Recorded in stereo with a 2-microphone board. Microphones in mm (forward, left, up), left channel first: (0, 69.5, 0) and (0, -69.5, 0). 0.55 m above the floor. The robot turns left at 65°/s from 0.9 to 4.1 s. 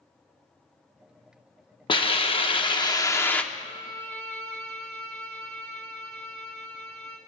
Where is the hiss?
115° left, 0.7 m; by 3.4 s 15° left, 0.7 m.